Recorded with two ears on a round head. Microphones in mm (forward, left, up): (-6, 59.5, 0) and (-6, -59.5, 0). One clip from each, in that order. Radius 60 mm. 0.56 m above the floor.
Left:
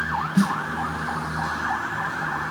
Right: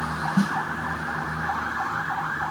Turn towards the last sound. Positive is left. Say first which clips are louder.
# left 2 dB
turn(degrees=30)  # may be behind; listen again after turning